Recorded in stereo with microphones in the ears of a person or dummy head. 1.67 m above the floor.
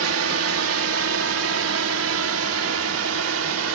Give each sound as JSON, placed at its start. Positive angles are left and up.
{"t": 0.0, "sound": "a drone", "side_deg": -80}